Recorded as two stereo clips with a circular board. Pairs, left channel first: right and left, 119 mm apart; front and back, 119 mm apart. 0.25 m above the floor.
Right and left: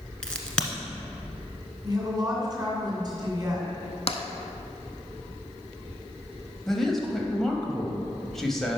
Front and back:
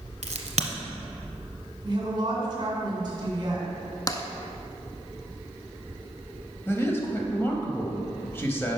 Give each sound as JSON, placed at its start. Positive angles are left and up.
{"t": 0.2, "sound": "a crack", "azimuth_deg": -175, "distance_m": 0.9}
{"t": 1.8, "sound": "a woman speaking", "azimuth_deg": 135, "distance_m": 2.0}
{"t": 4.1, "sound": "tapping", "azimuth_deg": -60, "distance_m": 0.5}
{"t": 6.7, "sound": "a man speaking", "azimuth_deg": -10, "distance_m": 0.9}